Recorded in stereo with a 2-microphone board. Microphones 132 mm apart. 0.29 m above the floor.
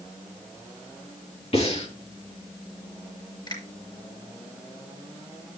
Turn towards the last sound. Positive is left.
turn(degrees=35)  # may be behind; listen again after turning